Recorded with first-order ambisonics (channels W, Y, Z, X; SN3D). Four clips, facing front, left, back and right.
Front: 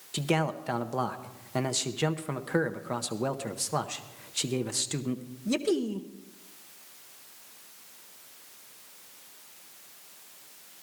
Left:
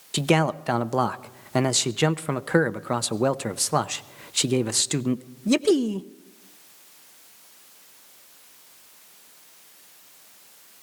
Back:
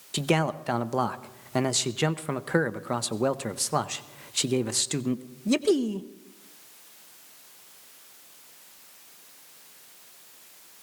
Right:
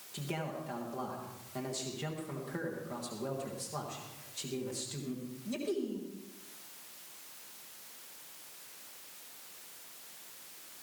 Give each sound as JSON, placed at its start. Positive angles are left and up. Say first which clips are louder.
{"t": 0.1, "sound": "a man speaking", "louder": "left 17 dB, back 3 dB", "azimuth_deg": 105, "distance_m": 0.6}